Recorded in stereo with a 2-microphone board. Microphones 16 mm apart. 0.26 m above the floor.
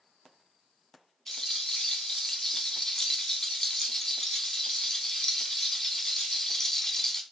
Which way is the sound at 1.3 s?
35° left (ahead or behind).